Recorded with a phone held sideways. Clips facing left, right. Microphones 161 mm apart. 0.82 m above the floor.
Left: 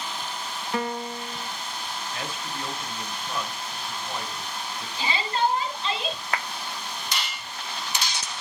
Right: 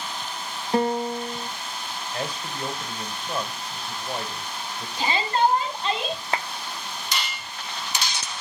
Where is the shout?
50° right (ahead or behind), 6.5 m.